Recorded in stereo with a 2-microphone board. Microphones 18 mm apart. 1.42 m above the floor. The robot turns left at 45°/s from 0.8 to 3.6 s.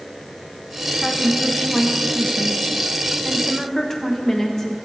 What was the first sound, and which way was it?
A woman speaking, 135° left.